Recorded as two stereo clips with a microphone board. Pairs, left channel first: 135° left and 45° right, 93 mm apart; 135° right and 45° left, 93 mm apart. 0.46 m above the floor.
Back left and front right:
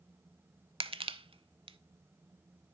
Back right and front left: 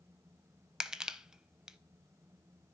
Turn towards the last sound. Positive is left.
turn(degrees=-40)